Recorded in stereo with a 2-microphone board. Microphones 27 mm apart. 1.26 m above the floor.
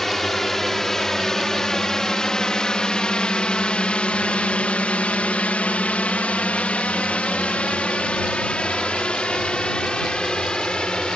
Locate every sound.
0.0 s a drone: 15° left (ahead or behind); by 11.2 s 30° left (ahead or behind)